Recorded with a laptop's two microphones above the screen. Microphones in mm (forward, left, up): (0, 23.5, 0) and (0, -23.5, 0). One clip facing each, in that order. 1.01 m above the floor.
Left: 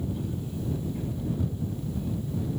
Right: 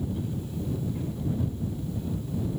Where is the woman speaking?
I don't hear a woman speaking.